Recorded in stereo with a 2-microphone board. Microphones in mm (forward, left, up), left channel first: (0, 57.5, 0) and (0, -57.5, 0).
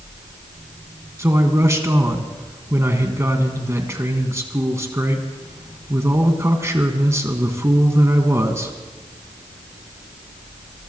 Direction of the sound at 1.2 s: 25° right (ahead or behind).